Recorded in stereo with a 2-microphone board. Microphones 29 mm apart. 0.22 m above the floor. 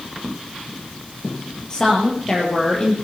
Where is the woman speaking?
25° left (ahead or behind), 5 m.